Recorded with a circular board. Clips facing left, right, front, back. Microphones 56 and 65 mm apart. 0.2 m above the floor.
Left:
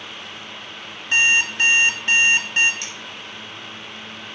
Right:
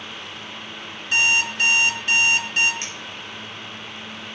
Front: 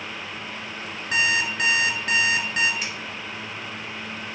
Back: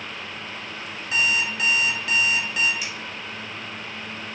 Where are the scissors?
40° right, 3 m.